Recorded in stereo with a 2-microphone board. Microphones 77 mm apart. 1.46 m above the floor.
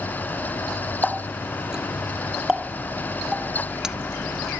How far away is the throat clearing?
No throat clearing in this recording.